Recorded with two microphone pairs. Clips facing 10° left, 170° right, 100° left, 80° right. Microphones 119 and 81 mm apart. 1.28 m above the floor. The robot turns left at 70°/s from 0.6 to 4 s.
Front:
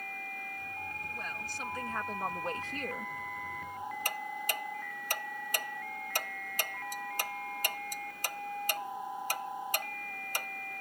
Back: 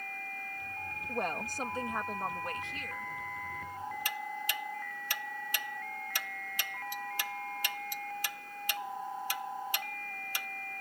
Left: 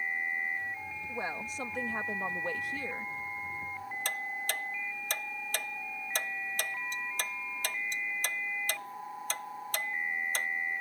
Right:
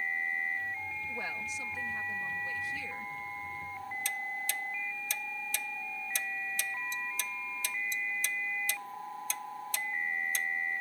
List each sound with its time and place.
1.1 s a woman speaking: 170° left; by 3.1 s 30° left
4.0 s ticking: 55° left